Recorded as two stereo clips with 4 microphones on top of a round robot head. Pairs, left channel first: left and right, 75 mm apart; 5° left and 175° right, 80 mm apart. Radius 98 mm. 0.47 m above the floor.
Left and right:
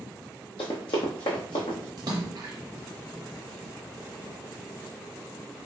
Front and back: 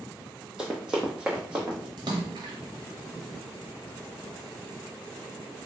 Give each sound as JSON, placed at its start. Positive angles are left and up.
{"t": 0.6, "sound": "running footsteps", "azimuth_deg": 105, "distance_m": 0.7}
{"t": 2.0, "sound": "a splash", "azimuth_deg": -130, "distance_m": 0.5}